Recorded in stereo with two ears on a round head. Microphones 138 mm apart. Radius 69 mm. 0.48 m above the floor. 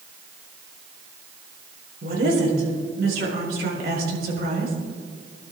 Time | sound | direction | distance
2.0 | a woman speaking | 65° right (ahead or behind) | 5.5 m